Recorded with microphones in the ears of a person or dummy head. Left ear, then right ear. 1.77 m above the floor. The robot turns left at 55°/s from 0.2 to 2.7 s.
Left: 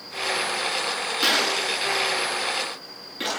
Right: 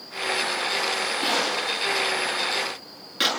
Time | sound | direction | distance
1.2 | a gunshot | 40° left (ahead or behind) | 9 m